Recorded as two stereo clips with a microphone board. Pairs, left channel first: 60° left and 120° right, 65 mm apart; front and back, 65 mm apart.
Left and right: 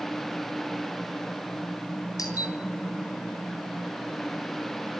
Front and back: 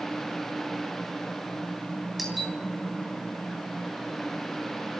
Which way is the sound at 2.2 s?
90° left.